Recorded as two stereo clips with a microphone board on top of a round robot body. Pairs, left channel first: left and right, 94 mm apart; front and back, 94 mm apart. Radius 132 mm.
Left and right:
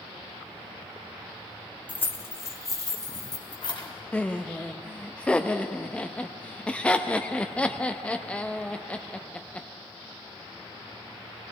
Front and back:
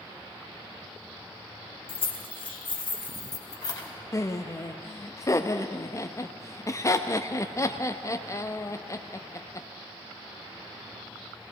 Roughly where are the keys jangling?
Ahead.